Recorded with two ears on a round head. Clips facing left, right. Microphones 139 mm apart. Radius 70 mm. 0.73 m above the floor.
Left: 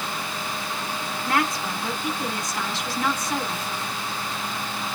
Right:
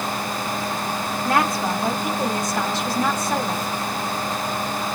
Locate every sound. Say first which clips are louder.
1.2 s a woman speaking: right 4 dB; 40° right (ahead or behind), 2 m